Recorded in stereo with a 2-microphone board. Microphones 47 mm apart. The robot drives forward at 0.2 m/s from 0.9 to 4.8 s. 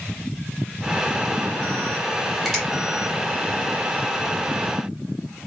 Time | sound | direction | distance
2.5 | a finger snap | centre (ahead or behind) | 2.5 m